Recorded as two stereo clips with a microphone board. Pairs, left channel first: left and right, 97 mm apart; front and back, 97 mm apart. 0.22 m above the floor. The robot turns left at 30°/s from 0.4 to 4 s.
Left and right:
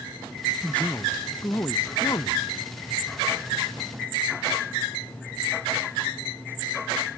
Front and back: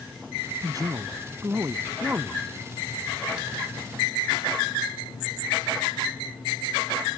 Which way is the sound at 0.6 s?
165° left.